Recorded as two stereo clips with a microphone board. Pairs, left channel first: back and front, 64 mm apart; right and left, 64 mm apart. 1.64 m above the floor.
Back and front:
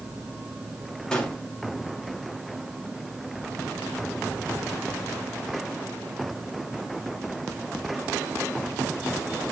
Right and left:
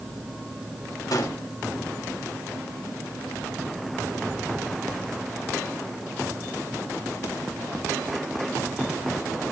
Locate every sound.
1.1 s a gunshot: 100° right, 2.5 m